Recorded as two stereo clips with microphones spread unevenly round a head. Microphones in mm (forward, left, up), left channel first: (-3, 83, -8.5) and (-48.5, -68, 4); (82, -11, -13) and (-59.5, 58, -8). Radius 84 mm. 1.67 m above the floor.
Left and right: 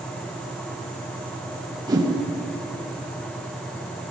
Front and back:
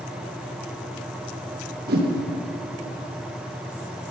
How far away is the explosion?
No explosion in this recording.